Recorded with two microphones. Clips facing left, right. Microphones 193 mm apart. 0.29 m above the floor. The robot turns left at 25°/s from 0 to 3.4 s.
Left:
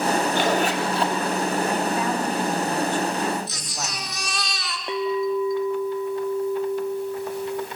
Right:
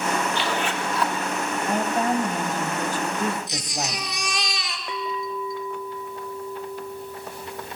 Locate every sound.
0.3 s a zipper: 45° left (ahead or behind), 2.0 m; by 1.1 s 25° left (ahead or behind), 2.0 m
1.7 s a woman speaking: 75° right, 1.9 m; by 4.1 s 115° right, 1.9 m
3.5 s a baby crying: 15° right (ahead or behind), 1.8 m
4.9 s a clink: 30° left (ahead or behind), 0.6 m